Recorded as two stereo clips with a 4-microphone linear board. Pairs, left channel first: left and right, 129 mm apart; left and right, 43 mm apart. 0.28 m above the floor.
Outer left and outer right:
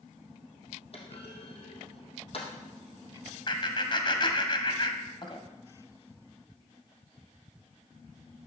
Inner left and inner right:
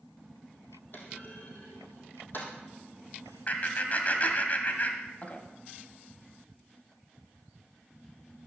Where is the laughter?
40° left (ahead or behind), 1.7 m.